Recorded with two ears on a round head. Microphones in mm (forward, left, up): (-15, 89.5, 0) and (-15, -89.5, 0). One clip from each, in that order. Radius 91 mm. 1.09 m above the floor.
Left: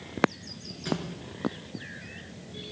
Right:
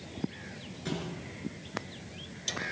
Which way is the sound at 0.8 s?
20° left (ahead or behind).